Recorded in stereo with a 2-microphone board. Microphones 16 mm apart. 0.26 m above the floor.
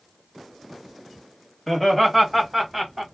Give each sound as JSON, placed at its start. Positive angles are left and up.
{"t": 1.7, "sound": "laughter", "side_deg": 15, "distance_m": 1.5}